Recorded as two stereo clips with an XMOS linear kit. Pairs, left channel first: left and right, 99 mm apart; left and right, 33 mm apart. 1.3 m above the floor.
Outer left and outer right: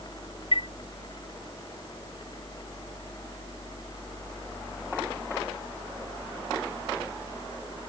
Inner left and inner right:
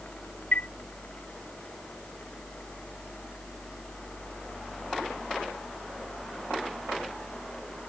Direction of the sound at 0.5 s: 60° left (ahead or behind).